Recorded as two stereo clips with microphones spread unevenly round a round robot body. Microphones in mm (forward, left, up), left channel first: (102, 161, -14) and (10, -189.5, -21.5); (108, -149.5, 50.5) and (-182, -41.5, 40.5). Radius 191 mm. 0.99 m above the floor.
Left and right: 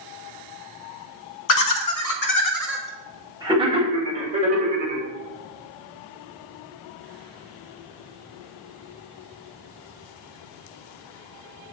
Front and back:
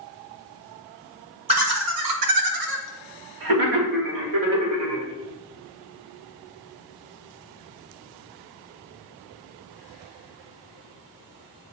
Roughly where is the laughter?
Left.